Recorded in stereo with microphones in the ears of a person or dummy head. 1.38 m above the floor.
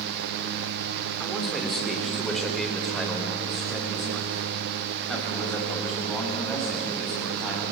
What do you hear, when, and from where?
1.2 s a man speaking: 5° left (ahead or behind), 3.5 m